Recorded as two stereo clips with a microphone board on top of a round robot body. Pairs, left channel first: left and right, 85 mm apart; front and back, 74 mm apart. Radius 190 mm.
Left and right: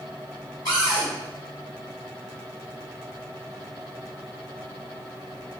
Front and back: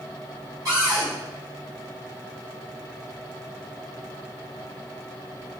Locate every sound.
0.7 s a cupboard door: 140° left, 1.3 m